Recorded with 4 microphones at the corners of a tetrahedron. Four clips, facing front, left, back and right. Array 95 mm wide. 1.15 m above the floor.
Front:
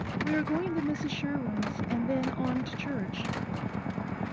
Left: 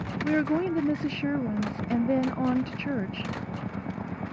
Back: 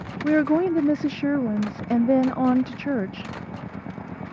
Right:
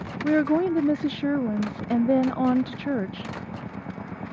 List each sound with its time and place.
0.2 s a woman speaking: 150° right